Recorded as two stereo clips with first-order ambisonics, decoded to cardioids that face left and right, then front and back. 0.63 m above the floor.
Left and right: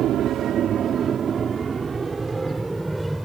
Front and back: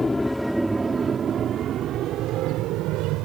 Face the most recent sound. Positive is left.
turn(degrees=-175)